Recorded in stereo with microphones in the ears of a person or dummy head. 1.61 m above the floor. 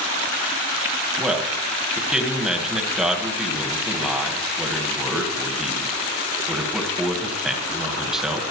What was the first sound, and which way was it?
A man speaking, centre (ahead or behind).